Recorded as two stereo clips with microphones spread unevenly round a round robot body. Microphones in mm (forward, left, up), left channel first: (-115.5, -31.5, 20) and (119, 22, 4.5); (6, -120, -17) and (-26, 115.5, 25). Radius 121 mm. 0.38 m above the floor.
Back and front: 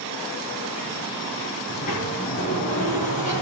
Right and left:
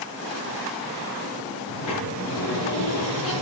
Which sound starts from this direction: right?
A sliding door, at 1.7 s.